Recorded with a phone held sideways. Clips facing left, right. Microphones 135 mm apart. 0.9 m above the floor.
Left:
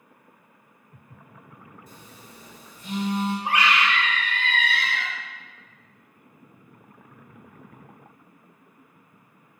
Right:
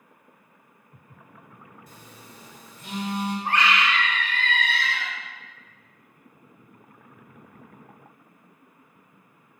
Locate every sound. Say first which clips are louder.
1.9 s a phone buzzing: even; 70° right (ahead or behind), 2.5 m
3.5 s a scream: right 1 dB; 10° left (ahead or behind), 1.9 m